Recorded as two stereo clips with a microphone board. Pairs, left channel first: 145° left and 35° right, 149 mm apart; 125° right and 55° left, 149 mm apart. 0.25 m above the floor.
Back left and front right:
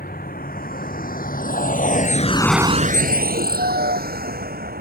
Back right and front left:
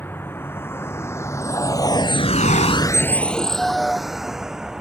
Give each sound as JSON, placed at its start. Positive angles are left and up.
{"t": 0.0, "sound": "a vehicle", "azimuth_deg": 160}